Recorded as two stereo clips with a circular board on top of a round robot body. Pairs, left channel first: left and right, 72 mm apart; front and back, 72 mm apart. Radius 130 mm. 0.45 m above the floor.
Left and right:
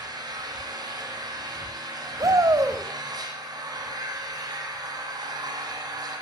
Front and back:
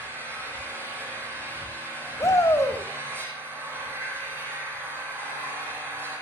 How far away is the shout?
About 2.5 m.